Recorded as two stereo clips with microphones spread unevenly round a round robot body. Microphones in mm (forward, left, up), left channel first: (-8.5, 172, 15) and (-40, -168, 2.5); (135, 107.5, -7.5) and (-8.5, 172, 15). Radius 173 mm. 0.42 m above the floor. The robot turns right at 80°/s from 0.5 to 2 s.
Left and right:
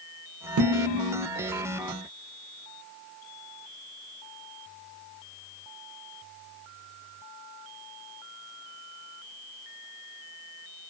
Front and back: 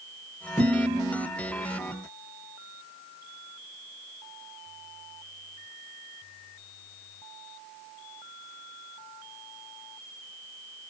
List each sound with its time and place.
0.6 s dishes clattering: 105° right, 0.5 m; by 1.3 s 45° right, 0.5 m